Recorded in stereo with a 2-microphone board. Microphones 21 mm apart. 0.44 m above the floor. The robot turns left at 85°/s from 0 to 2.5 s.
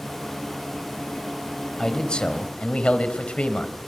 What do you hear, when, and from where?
1.8 s a man speaking: 155° left, 3 m; by 3.8 s 95° left, 3 m